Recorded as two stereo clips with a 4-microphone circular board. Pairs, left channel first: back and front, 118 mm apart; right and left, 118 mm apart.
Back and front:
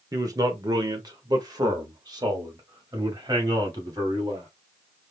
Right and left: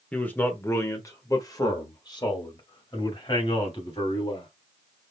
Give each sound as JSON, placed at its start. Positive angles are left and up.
{"t": 0.1, "sound": "a man speaking", "azimuth_deg": -20, "distance_m": 1.2}